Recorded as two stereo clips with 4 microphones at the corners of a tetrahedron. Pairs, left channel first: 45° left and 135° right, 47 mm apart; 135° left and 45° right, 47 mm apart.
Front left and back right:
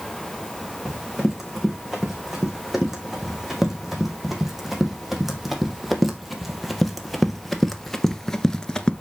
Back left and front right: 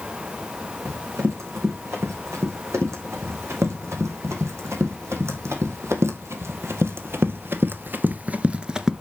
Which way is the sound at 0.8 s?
50° right.